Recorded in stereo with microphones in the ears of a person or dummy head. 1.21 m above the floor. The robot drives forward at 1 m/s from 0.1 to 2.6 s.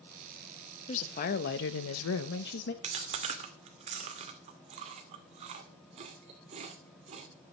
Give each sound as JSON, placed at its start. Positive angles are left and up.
{"t": 0.9, "sound": "a woman speaking", "side_deg": 40, "distance_m": 1.4}
{"t": 2.8, "sound": "chewing", "side_deg": -40, "distance_m": 2.0}